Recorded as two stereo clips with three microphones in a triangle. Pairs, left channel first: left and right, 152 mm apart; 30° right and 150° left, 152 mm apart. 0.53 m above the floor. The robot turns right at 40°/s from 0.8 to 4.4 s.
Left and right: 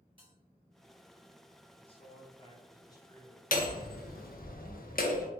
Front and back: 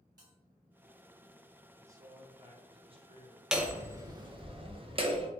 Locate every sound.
0.2 s a bell: 145° right, 1.9 m
1.8 s a man speaking: 95° left, 0.7 m; by 3.4 s 155° left, 0.7 m
3.5 s hammering: 65° left, 0.5 m; by 5.3 s 100° left, 0.5 m